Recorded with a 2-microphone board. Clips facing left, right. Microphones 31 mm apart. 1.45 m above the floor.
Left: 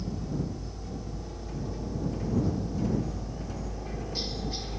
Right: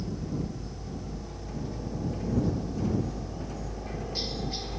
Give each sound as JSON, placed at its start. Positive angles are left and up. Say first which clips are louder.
{"t": 0.0, "sound": "a helicopter", "louder": "even", "side_deg": 0}